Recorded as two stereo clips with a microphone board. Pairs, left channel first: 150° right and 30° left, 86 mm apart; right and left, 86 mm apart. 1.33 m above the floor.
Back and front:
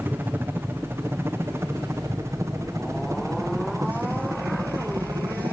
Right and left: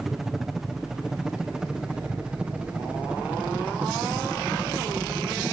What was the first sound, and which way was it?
A helicopter, 10° left.